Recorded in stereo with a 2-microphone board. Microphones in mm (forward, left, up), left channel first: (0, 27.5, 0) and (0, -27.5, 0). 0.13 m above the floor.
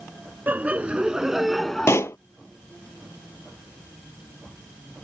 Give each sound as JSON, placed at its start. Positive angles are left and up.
{"t": 0.5, "sound": "laughter", "side_deg": -35}
{"t": 1.9, "sound": "a pop", "side_deg": 60}